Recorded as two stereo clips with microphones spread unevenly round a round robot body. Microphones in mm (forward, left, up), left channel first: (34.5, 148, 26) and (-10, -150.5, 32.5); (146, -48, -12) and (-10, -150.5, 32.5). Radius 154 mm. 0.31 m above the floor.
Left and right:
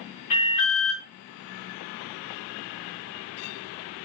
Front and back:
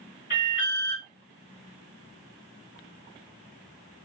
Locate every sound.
0.3 s an alarm: 85° left, 4 m